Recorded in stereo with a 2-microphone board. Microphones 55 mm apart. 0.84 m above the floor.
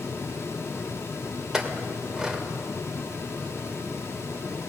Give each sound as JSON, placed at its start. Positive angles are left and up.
{"t": 1.5, "sound": "a clink", "side_deg": -15, "distance_m": 2.0}